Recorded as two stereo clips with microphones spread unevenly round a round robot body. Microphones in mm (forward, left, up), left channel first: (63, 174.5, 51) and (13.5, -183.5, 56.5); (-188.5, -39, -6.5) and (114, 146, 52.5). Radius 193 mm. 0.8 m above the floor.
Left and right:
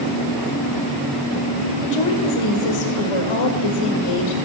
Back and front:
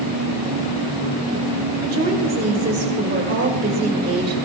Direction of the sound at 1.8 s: 95° left.